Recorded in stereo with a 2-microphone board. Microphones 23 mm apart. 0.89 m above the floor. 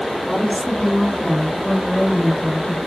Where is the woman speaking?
55° left (ahead or behind), 3 m; by 2.8 s centre (ahead or behind), 1.0 m.